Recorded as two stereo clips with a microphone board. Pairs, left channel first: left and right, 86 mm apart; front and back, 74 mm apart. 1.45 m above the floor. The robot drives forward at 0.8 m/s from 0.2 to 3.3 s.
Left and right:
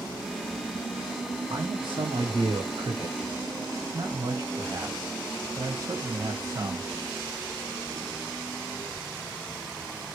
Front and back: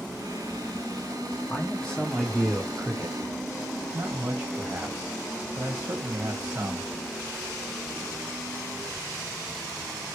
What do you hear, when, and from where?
1.5 s a man speaking: 70° right, 0.9 m; by 6.9 s 140° right, 1.4 m